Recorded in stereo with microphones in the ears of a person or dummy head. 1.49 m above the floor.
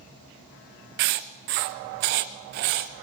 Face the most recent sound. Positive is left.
turn(degrees=-40)  # may be behind; listen again after turning